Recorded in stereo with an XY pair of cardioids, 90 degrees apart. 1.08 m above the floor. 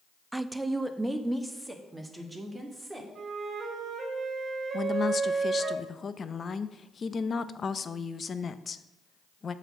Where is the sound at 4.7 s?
45° left, 0.6 m.